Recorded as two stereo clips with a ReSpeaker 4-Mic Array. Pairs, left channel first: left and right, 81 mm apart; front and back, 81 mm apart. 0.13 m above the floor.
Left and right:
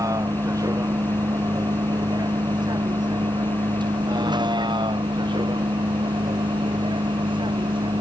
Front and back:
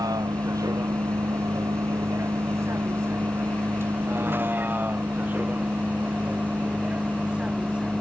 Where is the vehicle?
135° right; by 8.0 s 100° right.